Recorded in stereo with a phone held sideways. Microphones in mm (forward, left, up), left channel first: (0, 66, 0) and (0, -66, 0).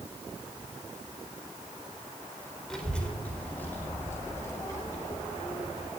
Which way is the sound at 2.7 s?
5° left (ahead or behind).